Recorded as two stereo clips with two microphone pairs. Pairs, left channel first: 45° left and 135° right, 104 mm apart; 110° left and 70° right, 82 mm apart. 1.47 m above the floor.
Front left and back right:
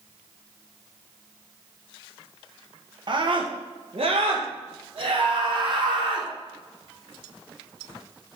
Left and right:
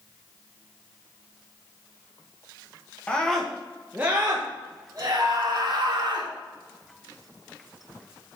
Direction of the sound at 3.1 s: 170° right.